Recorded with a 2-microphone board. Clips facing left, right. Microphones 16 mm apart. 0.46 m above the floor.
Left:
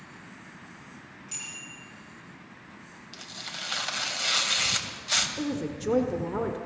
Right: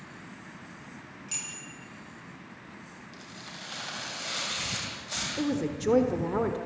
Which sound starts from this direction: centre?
A woman speaking, at 5.4 s.